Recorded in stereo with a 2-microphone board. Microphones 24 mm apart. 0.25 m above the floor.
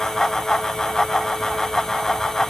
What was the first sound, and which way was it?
Only background noise.